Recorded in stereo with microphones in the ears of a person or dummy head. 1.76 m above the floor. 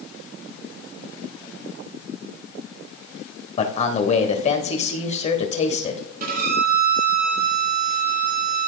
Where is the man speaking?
35° left (ahead or behind), 1.6 m.